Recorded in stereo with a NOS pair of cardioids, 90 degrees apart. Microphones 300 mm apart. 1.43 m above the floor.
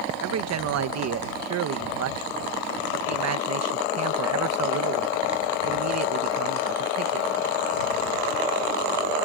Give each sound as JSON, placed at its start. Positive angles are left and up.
{"t": 0.2, "sound": "a man speaking", "azimuth_deg": -60}